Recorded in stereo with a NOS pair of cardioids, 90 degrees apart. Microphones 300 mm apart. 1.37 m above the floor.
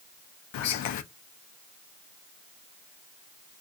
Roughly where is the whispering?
Left.